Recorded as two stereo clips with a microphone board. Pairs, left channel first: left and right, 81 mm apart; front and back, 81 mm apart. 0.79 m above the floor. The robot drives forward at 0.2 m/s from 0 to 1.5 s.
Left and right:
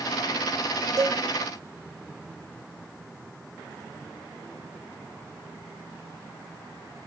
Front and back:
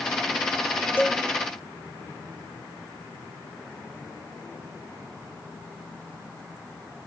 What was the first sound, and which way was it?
A cowbell, 60° right.